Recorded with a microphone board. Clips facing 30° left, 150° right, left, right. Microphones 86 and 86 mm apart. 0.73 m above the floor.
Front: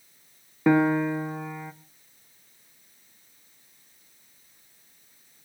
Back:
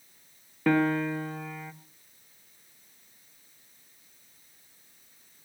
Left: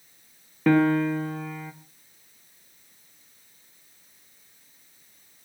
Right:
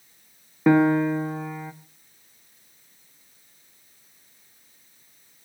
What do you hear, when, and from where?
0.7 s a piano: 35° right, 1.0 m